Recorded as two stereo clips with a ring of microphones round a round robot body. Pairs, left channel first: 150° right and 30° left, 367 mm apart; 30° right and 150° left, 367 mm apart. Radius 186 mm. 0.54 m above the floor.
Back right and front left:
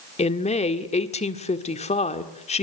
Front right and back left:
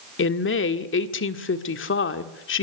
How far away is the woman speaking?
About 1.7 m.